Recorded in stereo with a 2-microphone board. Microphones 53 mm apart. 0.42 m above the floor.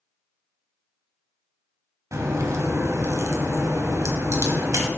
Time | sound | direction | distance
2.1 | a crack | 70° right (ahead or behind) | 1.0 m